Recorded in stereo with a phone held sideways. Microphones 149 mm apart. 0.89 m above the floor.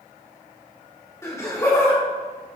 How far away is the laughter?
About 2.5 m.